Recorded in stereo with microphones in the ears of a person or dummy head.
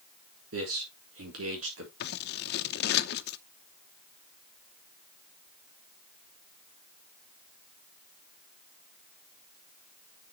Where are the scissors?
55° left (ahead or behind), 0.8 m.